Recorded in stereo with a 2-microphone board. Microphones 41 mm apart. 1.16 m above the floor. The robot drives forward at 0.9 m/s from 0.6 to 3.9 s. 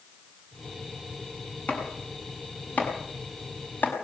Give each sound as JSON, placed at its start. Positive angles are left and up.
{"t": 1.7, "sound": "chopping", "side_deg": 35, "distance_m": 7.0}